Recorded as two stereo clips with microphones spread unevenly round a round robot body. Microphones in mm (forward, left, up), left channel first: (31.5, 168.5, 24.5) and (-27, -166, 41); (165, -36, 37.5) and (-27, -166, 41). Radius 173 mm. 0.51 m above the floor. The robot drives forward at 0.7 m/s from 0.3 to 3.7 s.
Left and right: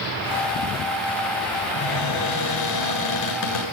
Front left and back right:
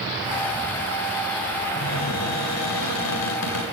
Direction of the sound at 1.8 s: 35° left.